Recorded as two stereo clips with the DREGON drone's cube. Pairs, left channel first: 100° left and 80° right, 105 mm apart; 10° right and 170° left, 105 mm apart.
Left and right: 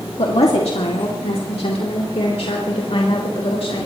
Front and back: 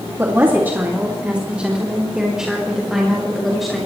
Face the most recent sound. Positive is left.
turn(degrees=80)